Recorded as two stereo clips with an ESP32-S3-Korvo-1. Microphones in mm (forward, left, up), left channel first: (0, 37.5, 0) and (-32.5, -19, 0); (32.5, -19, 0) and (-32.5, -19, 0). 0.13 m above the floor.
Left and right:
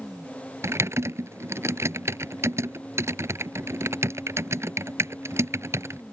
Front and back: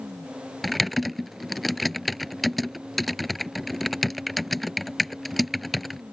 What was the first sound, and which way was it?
Typing on a keyboard, 90° right.